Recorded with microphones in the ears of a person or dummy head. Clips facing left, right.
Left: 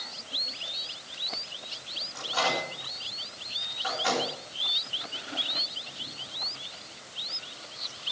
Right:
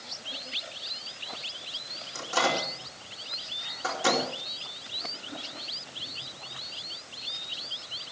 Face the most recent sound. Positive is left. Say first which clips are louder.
# right 2 dB
turn(degrees=-55)  # may be behind; listen again after turning